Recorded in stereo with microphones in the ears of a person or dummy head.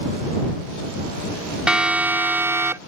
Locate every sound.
1.7 s a siren: 5° right (ahead or behind); by 2.8 s 15° right (ahead or behind)